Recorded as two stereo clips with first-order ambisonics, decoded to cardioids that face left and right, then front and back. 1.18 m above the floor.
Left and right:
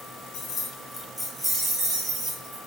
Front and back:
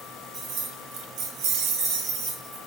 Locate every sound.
0.3 s keys jangling: 125° left, 0.8 m; by 2.6 s 140° right, 1.4 m